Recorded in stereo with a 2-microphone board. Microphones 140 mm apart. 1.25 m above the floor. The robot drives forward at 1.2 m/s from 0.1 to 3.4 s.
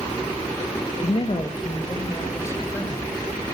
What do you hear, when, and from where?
1.0 s a man speaking: 50° left (ahead or behind), 1.2 m; by 3.2 s 15° left (ahead or behind), 3.5 m